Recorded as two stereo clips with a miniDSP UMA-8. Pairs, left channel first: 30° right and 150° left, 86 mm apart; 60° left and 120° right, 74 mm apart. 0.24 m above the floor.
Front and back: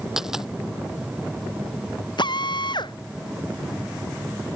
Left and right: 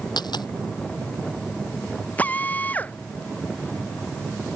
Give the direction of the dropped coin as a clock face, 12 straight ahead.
10 o'clock.